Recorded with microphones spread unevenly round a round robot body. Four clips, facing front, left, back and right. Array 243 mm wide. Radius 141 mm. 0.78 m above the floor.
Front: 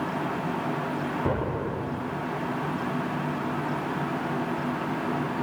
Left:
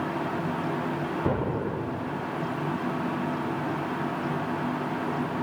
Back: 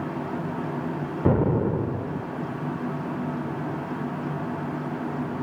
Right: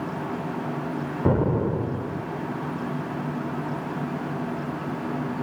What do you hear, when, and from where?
1.2 s an explosion: 145° right, 0.5 m